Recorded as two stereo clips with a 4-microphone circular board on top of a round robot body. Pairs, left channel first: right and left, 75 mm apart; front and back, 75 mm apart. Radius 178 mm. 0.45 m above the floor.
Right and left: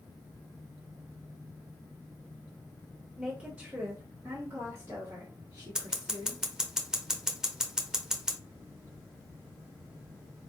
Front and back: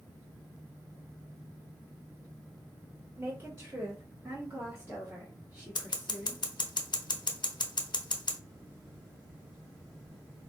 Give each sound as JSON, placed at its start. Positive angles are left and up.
{"t": 3.2, "sound": "a woman speaking", "azimuth_deg": 160, "distance_m": 1.4}
{"t": 5.8, "sound": "scissors", "azimuth_deg": 10, "distance_m": 0.8}